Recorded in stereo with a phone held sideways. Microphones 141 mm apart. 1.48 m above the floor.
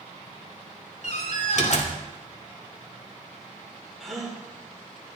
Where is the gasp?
Centre (ahead or behind), 4 m.